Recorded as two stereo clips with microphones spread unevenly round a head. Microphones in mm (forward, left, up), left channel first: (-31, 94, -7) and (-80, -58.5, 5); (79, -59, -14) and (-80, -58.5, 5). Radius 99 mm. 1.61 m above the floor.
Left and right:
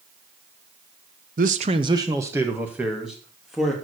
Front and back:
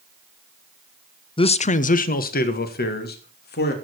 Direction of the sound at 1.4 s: 60° right.